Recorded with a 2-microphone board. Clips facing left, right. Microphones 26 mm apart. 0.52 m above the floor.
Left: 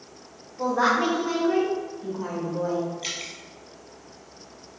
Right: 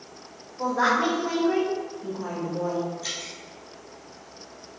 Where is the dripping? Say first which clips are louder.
Left 1 dB; 65° left (ahead or behind), 1.6 m.